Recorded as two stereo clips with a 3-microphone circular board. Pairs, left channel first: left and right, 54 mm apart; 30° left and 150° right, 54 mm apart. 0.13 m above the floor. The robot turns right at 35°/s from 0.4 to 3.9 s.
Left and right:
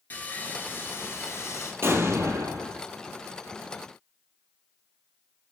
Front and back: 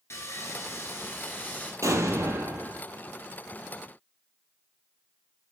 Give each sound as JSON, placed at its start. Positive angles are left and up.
{"t": 0.1, "sound": "sawing", "azimuth_deg": 40, "distance_m": 0.9}
{"t": 1.8, "sound": "an explosion", "azimuth_deg": -130, "distance_m": 0.8}